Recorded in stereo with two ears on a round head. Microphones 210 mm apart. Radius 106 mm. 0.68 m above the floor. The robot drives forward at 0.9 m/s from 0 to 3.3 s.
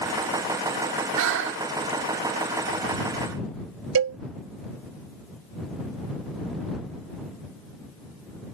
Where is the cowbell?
65° right (ahead or behind).